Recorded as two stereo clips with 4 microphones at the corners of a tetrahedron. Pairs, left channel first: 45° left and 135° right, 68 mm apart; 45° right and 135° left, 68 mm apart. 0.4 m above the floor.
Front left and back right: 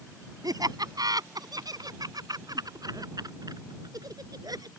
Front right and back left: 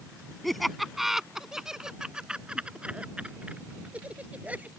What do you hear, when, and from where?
0.4 s laughter: 135° right; by 4.7 s 155° right